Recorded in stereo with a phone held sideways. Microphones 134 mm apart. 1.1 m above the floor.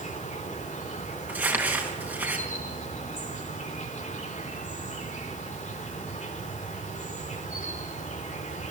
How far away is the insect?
About 4.5 m.